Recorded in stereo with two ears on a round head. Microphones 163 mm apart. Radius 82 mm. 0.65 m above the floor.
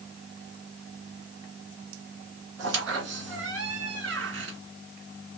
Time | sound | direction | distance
2.6 | a squeak | 75° right (ahead or behind) | 1.5 m